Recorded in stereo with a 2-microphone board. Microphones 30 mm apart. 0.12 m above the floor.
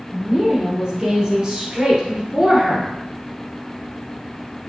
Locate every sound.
0.1 s a woman speaking: 10° right (ahead or behind), 2.0 m